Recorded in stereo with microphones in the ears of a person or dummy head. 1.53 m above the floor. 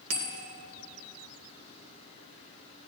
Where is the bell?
65° right (ahead or behind), 1.9 m.